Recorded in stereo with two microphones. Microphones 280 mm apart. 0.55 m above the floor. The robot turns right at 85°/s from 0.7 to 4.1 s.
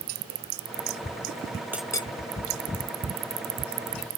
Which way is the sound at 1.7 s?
5° right (ahead or behind).